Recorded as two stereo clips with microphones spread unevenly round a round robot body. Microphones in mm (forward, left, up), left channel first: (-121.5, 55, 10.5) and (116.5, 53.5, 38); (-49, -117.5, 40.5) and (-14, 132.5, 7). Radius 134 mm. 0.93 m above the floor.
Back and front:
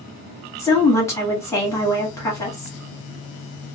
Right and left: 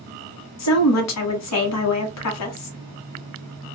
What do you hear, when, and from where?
0.6 s a woman speaking: 105° right, 1.0 m